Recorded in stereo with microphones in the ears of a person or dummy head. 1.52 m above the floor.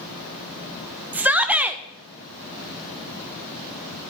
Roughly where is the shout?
Centre.